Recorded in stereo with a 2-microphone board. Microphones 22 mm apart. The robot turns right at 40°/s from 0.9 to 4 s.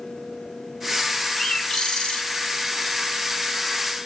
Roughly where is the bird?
Ahead left.